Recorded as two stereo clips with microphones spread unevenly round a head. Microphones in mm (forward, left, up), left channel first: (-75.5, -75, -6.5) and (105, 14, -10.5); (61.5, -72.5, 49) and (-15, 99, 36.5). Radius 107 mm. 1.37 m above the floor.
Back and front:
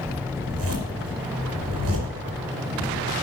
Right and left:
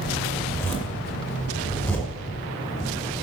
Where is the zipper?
15° left, 4.5 m.